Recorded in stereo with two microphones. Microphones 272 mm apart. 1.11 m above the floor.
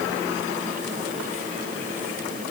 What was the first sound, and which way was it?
Only background noise.